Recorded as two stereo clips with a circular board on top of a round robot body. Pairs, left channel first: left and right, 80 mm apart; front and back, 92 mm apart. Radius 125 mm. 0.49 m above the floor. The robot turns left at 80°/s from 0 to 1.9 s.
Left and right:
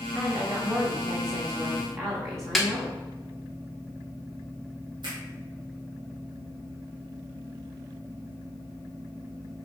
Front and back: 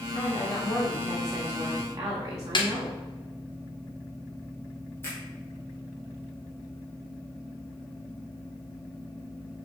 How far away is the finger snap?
About 3 m.